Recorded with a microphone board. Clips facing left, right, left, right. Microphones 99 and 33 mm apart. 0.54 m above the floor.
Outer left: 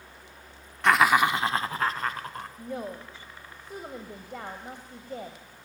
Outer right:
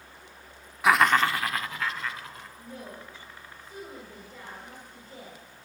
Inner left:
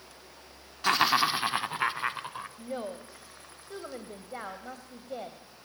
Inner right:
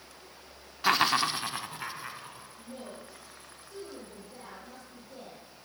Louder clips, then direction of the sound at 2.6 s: Outer left 7 dB, inner left 7 dB; 70° left (ahead or behind).